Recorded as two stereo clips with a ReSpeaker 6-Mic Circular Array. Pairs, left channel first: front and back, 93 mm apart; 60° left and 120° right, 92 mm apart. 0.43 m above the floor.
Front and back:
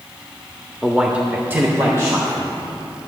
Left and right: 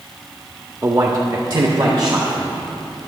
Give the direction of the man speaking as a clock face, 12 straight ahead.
3 o'clock.